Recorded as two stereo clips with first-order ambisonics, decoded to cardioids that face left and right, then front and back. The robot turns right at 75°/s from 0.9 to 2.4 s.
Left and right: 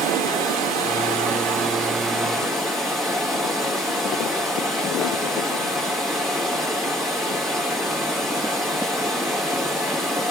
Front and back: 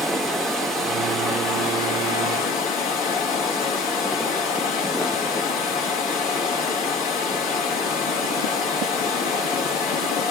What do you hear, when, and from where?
0.0 s running water: 100° right, 1.2 m; by 10.3 s 10° left, 1.2 m